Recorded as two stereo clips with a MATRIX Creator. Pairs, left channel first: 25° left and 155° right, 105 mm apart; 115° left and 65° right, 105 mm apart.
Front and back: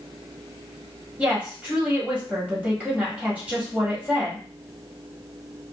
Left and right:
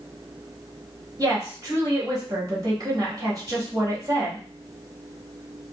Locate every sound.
1.2 s a woman speaking: 90° right, 1.3 m